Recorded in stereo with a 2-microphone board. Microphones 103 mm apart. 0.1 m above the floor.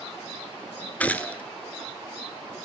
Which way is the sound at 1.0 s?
15° left (ahead or behind).